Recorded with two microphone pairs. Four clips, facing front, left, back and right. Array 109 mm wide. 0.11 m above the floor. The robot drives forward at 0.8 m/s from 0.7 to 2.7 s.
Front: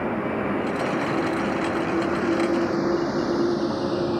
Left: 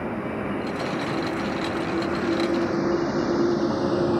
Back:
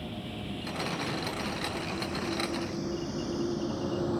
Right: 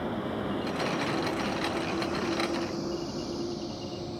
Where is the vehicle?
10° left; by 4.2 s 65° left.